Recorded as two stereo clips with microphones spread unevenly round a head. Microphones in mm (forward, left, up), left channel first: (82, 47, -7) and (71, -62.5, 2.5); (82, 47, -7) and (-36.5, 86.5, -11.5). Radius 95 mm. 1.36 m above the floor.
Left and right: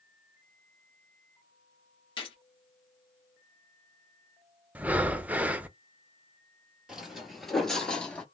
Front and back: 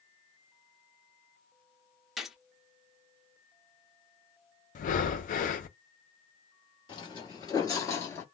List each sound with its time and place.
2.2 s a gunshot: 70° left, 0.9 m
4.8 s breathing: 15° right, 0.6 m
6.9 s footsteps: 20° right, 1.7 m; by 8.2 s 15° left, 1.4 m